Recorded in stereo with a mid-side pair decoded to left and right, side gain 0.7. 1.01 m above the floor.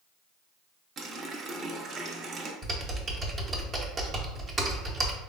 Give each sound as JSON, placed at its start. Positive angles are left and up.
{"t": 1.0, "sound": "a running tap", "azimuth_deg": -40, "distance_m": 0.5}
{"t": 2.6, "sound": "typing on a keyboard", "azimuth_deg": -30, "distance_m": 0.7}